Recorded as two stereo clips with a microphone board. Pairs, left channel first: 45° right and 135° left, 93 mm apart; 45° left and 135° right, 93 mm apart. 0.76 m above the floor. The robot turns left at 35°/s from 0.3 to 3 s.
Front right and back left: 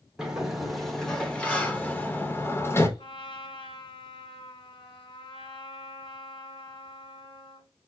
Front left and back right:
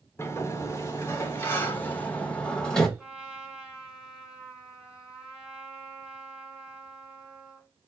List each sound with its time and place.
0.2 s a sliding door: 60° left, 0.9 m; by 2.9 s 30° right, 0.9 m
3.0 s a trumpet: 55° right, 2 m